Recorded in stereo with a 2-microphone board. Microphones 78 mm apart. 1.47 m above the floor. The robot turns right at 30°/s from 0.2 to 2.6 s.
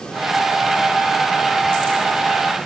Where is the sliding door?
I don't hear a sliding door.